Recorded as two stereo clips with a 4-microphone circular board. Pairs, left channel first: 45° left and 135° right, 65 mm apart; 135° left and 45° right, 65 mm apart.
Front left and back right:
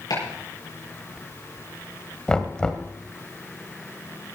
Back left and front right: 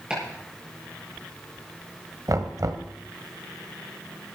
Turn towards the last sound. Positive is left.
turn(degrees=-30)